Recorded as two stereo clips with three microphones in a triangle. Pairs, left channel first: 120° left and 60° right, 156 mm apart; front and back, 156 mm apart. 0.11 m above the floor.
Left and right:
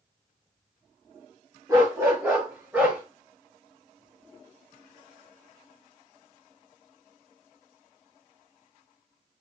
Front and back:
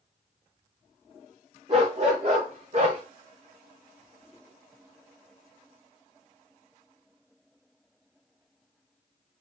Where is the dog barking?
130° right, 4 m; by 3.0 s 140° right, 4.5 m.